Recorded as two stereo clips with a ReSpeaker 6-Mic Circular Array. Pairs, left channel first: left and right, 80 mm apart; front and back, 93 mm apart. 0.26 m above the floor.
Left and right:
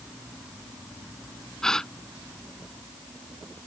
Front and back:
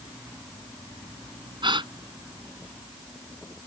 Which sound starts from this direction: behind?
A gasp, at 1.6 s.